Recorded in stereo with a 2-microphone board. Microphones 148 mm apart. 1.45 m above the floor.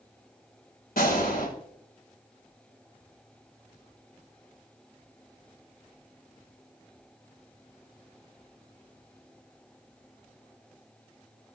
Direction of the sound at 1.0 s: 80° left.